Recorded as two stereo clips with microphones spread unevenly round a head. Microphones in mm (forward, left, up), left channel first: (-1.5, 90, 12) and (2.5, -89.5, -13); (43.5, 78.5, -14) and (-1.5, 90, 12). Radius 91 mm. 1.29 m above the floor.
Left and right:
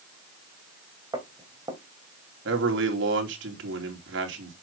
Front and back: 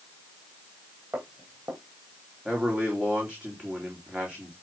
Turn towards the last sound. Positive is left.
turn(degrees=-110)